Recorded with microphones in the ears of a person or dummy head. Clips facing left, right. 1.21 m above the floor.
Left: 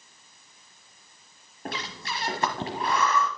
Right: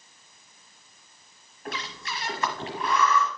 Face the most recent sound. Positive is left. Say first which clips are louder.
# left 1 dB
turn(degrees=30)  # may be behind; listen again after turning